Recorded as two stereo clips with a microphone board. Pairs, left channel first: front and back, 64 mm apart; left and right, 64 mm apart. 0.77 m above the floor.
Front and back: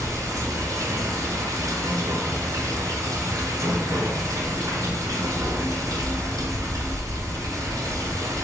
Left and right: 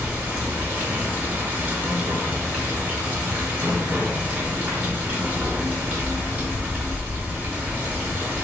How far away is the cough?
No cough in this recording.